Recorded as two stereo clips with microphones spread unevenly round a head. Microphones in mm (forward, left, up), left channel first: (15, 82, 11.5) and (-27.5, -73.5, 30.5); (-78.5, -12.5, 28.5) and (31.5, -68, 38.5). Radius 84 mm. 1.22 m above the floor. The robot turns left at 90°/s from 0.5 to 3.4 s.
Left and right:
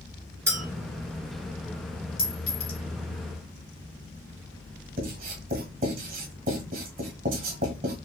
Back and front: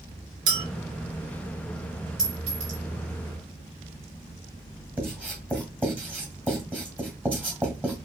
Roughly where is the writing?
Right.